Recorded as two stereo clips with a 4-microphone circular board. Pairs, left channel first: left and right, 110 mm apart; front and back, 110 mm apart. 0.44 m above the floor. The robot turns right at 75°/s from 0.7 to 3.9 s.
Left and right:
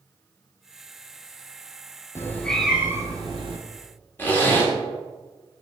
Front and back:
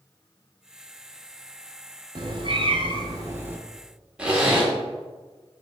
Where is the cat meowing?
150° left, 0.6 m; by 3.6 s 105° right, 0.6 m.